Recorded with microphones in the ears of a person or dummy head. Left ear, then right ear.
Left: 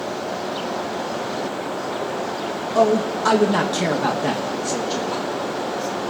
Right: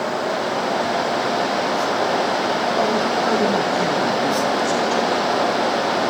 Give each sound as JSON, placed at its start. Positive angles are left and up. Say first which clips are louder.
{"t": 2.8, "sound": "a man speaking", "louder": "even", "side_deg": 70, "distance_m": 2.5}